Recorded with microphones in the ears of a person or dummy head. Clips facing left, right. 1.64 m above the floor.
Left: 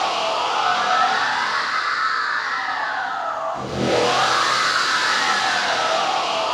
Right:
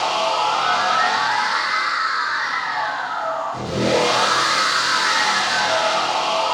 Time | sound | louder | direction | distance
0.0 | a machine running | right 2 dB | 60° right (ahead or behind) | 1.2 m